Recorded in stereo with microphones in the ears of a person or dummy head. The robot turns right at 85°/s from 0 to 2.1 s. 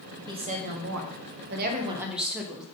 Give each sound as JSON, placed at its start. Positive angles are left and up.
{"t": 0.3, "sound": "a woman speaking", "azimuth_deg": -160, "distance_m": 1.5}